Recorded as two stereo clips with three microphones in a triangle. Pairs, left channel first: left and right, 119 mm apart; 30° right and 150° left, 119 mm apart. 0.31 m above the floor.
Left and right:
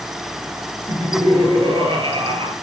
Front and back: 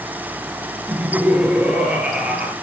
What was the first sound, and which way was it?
Laughter, 130° right.